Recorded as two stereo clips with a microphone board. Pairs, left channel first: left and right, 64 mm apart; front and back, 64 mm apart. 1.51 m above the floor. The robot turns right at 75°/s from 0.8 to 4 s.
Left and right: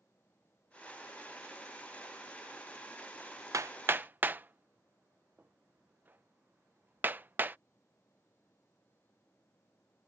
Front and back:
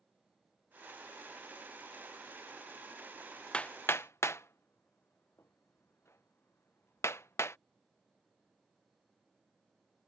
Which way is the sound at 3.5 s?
70° right.